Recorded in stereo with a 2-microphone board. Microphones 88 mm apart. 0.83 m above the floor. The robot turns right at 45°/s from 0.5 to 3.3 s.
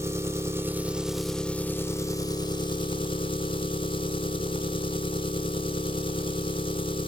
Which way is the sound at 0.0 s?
35° right.